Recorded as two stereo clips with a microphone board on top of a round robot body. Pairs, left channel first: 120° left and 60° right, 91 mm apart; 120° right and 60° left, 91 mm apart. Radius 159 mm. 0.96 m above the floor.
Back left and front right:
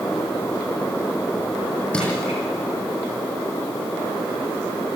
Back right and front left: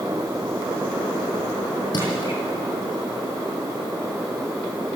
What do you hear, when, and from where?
1.9 s crushing: 165° right, 9 m